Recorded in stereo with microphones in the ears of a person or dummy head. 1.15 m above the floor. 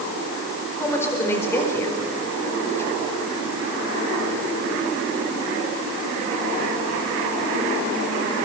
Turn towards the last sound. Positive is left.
turn(degrees=20)  # may be behind; listen again after turning